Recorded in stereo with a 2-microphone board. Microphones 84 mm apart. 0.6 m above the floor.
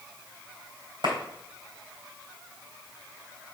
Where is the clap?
65° right (ahead or behind), 3 m.